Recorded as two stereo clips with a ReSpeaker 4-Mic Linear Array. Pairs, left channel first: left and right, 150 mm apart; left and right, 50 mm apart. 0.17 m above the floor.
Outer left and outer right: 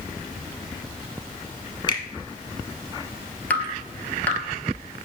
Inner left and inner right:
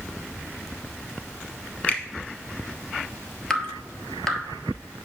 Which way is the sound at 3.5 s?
10° left (ahead or behind).